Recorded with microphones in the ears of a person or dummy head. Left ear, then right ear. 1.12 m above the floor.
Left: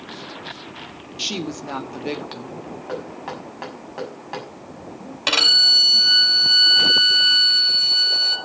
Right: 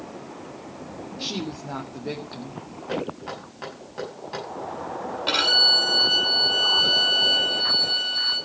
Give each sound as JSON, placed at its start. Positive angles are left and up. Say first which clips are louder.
{"t": 1.2, "sound": "a woman speaking", "louder": "left 5 dB", "side_deg": 65, "distance_m": 1.9}
{"t": 2.9, "sound": "knocking", "louder": "right 2 dB", "side_deg": 25, "distance_m": 6.5}
{"t": 5.3, "sound": "a violin", "louder": "left 4 dB", "side_deg": 85, "distance_m": 4.0}